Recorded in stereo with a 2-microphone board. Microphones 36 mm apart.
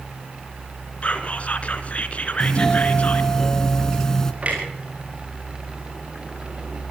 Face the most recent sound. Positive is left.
turn(degrees=-40)  # may be behind; listen again after turning